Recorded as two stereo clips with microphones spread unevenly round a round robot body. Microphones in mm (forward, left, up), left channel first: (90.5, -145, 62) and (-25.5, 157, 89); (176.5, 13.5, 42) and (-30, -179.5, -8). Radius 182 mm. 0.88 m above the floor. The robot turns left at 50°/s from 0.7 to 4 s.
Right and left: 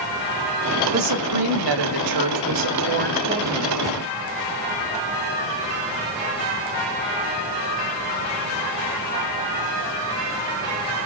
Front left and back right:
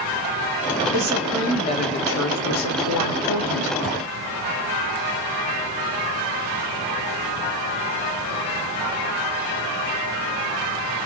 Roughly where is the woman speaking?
Behind left.